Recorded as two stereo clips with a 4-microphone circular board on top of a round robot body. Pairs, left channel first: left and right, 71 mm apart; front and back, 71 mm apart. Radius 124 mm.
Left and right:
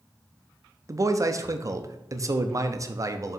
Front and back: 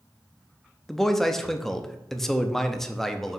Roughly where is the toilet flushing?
No toilet flushing in this recording.